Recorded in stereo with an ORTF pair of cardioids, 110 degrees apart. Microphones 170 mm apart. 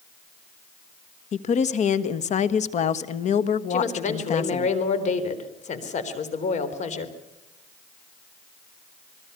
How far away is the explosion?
I don't hear an explosion.